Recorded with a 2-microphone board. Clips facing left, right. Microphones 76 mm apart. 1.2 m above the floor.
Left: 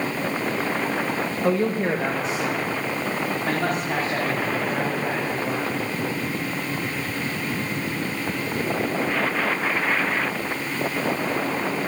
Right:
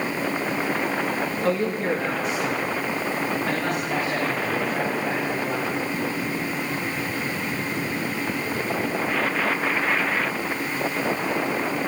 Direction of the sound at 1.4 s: 10° left (ahead or behind).